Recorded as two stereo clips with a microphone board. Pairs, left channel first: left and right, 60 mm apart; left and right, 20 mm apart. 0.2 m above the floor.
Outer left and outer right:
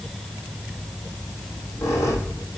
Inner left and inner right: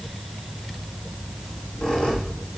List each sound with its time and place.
1.4 s a squeak: 50° left (ahead or behind), 3.5 m